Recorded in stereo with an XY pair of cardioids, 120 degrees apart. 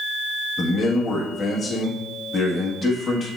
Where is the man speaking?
30° left, 1.3 m.